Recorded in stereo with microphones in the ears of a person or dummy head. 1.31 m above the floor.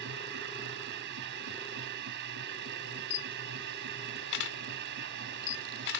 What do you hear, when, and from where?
0.0 s a machine running: 55° right (ahead or behind)
3.1 s a camera shutter: 65° left (ahead or behind)